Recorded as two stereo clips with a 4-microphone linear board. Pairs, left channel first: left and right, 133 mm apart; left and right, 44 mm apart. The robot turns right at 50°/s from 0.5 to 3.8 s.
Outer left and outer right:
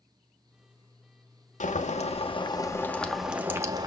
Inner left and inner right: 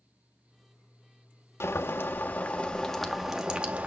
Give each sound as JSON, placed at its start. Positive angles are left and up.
{"t": 1.6, "sound": "boiling", "azimuth_deg": 100, "distance_m": 1.0}